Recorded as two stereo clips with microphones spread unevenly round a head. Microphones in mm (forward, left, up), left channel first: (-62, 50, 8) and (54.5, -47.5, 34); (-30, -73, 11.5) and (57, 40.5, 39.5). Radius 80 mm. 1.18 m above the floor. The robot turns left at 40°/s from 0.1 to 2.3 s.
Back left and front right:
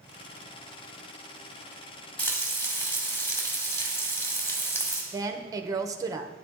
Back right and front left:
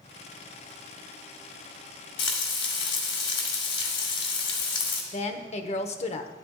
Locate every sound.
2.2 s frying: 135° right, 1.9 m; by 5.0 s 140° right, 1.9 m
5.1 s a woman speaking: 110° right, 1.0 m